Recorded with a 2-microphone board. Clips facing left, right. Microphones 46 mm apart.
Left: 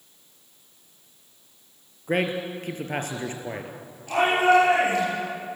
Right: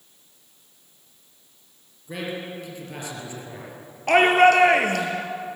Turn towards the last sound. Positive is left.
turn(degrees=-60)  # may be behind; listen again after turning